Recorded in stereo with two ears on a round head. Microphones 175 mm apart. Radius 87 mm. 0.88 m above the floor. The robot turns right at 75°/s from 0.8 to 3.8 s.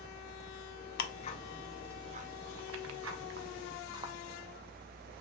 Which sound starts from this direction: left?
Ticking, at 1.0 s.